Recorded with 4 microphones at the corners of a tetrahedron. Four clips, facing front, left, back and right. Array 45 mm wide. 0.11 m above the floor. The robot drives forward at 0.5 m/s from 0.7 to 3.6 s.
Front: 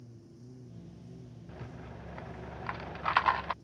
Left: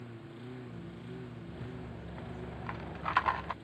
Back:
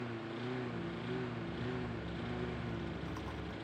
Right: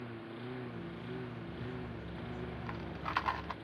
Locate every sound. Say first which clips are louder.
0.0 s a lawn mower: right 3 dB, back 13 dB; 160° right; by 3.6 s 165° right
1.5 s a rattle: right 2 dB, back 7 dB; 10° left; by 3.5 s 15° left